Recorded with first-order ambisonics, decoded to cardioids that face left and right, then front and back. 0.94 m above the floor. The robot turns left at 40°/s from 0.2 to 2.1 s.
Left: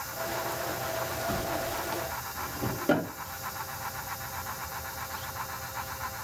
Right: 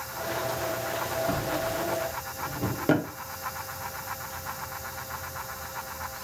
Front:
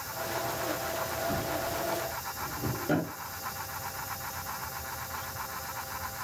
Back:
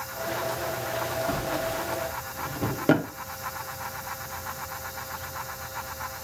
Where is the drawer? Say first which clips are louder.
Right 3 dB, back 3 dB; 130° right, 0.7 m; by 3.1 s 160° right, 0.7 m.